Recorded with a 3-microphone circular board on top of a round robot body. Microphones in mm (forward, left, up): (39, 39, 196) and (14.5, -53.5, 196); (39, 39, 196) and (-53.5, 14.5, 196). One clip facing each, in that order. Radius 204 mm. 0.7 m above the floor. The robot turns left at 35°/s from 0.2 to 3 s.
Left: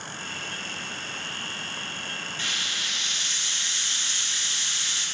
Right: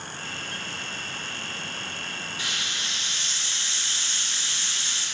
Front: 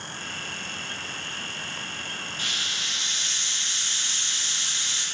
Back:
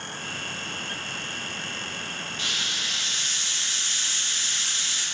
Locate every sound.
2.4 s a hiss: 30° right, 3 m; by 5.0 s 50° right, 3 m